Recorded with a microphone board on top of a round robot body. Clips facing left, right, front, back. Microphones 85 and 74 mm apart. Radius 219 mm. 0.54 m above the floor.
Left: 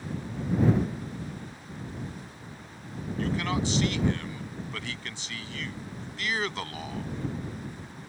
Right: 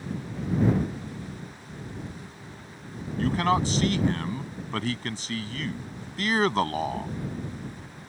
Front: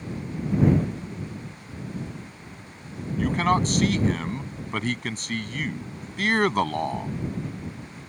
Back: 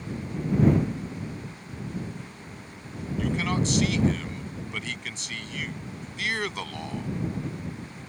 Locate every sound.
3.2 s a man speaking: 45° right